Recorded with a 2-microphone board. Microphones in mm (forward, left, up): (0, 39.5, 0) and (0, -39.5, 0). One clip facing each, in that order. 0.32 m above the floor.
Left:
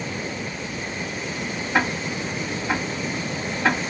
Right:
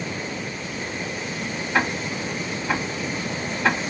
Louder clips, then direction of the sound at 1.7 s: Even; 20° left (ahead or behind).